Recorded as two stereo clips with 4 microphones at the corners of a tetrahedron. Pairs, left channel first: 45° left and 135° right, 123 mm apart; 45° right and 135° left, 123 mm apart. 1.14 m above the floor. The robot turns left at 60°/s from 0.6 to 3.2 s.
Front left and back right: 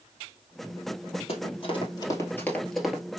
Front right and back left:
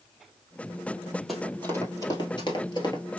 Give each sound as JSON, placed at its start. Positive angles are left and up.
{"t": 1.3, "sound": "running footsteps", "azimuth_deg": 45, "distance_m": 1.9}